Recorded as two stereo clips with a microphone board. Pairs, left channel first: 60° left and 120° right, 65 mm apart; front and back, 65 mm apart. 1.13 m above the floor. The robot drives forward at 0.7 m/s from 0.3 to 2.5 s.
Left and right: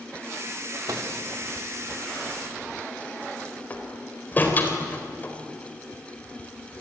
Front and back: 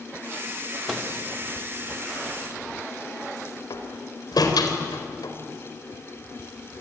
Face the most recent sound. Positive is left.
turn(degrees=0)